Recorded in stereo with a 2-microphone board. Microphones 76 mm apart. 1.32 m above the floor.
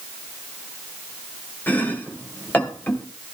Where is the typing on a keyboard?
No typing on a keyboard in this recording.